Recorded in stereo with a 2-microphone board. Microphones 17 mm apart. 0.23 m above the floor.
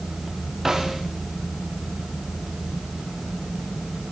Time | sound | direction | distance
0.7 | a snare drum | 20° right (ahead or behind) | 9 m